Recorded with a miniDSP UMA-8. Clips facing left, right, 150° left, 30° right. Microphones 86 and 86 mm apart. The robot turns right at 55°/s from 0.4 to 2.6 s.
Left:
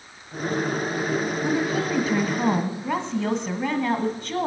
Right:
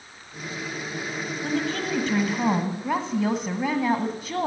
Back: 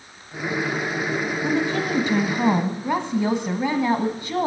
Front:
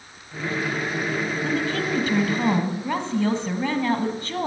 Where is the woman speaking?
125° left, 1.4 m; by 4.5 s 170° right, 1.4 m.